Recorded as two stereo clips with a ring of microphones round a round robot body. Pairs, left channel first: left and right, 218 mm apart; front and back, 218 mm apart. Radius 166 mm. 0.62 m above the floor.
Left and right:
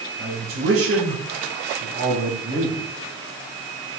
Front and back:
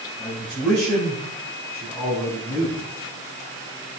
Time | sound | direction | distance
0.2 | a man speaking | 90° right | 4.5 m